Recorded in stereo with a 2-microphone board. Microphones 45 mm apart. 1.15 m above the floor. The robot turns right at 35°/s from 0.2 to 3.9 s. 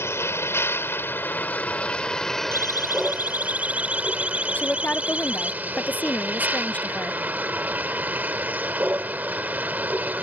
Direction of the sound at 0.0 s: 90° left.